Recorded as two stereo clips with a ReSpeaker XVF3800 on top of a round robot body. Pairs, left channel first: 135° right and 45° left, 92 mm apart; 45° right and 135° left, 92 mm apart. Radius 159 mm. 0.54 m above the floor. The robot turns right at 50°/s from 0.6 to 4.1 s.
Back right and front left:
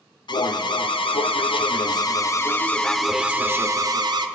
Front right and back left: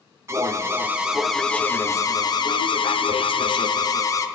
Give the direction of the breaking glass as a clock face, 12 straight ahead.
I don't hear breaking glass.